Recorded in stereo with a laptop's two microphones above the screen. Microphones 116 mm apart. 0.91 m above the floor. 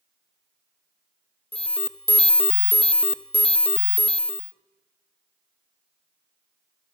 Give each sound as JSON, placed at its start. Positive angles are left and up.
{"t": 1.5, "sound": "an alarm", "side_deg": 55, "distance_m": 0.8}